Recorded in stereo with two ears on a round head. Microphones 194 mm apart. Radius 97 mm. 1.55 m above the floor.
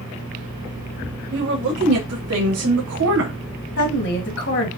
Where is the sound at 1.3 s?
75° right (ahead or behind), 2 m; by 3.3 s 65° right (ahead or behind), 0.9 m.